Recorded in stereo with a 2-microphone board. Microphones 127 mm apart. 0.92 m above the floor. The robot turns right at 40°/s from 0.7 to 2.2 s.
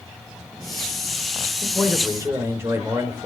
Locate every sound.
1.6 s a man speaking: 5° left (ahead or behind), 3 m; by 3.3 s 20° right (ahead or behind), 3 m